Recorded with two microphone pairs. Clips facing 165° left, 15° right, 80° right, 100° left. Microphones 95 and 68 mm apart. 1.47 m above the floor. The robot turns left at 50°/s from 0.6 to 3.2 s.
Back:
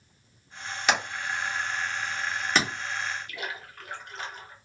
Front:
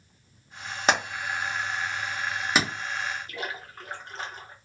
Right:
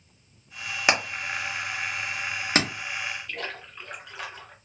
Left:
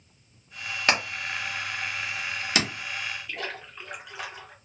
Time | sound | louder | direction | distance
0.9 | hammering | front 2 dB, right 1 dB | 10° right | 1.1 m
3.3 | a splash | front 2 dB, even | 15° left | 0.8 m